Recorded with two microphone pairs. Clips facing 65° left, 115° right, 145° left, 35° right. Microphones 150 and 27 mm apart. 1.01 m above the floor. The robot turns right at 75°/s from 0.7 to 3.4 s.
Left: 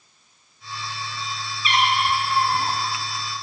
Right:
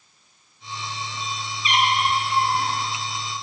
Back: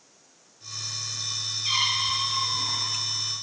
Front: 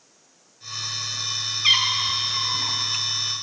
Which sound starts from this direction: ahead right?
A cat meowing, at 1.6 s.